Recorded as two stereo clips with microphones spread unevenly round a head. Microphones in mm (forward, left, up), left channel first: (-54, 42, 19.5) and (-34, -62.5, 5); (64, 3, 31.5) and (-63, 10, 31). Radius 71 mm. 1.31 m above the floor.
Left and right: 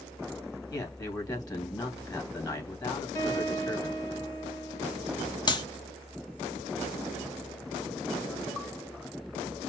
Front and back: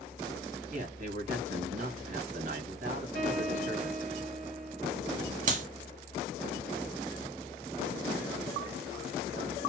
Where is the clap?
150° left, 1.4 m.